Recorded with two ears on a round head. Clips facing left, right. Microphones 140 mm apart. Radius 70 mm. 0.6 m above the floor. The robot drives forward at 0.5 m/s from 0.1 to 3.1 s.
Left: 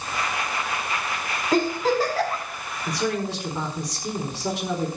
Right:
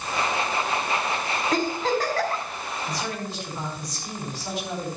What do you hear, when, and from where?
1.5 s a giggle: 5° left (ahead or behind), 6 m
2.9 s a man speaking: 55° left (ahead or behind), 4.5 m; by 4.9 s 60° left (ahead or behind), 4.5 m